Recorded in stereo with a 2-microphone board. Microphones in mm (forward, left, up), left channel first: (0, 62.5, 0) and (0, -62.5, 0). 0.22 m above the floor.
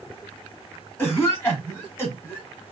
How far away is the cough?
About 2.0 m.